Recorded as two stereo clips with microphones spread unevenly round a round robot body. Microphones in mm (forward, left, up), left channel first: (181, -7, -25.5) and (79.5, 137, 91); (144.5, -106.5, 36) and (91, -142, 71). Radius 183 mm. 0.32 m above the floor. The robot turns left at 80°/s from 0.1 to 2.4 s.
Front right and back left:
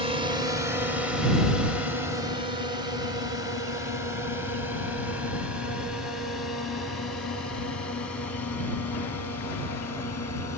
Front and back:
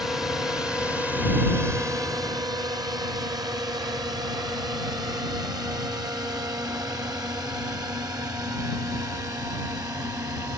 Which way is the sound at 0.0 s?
25° left.